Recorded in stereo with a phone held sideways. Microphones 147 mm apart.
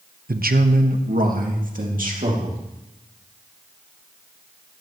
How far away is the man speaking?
About 0.9 m.